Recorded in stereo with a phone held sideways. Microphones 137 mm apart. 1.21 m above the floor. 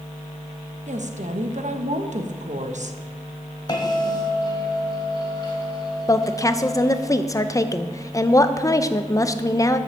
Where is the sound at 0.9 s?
60° right (ahead or behind), 0.9 m.